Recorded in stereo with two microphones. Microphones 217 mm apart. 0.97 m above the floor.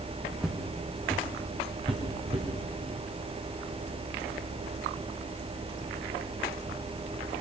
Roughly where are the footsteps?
Centre.